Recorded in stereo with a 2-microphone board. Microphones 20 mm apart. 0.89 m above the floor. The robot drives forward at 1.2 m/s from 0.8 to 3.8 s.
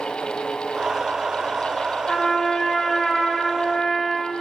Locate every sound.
2.1 s a trumpet: 15° left (ahead or behind), 5 m; by 4.3 s 10° left (ahead or behind), 7 m